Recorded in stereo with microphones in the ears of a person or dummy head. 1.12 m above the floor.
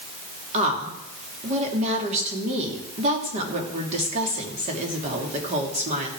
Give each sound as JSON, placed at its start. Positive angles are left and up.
{"t": 0.5, "sound": "a woman speaking", "side_deg": -35, "distance_m": 2.5}